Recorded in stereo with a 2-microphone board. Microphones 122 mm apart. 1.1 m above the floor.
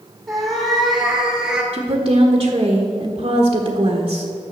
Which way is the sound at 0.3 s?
Centre (ahead or behind).